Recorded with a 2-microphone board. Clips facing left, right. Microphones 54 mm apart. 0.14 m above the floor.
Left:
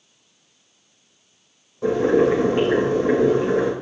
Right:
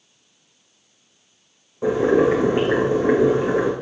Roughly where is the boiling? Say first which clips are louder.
Even; centre.